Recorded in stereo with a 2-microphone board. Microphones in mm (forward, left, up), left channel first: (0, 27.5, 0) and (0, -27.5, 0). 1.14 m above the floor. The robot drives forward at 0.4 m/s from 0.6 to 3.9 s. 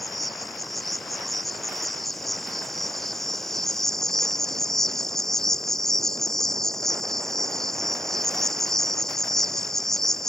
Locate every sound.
0.0 s an insect: 5° left (ahead or behind)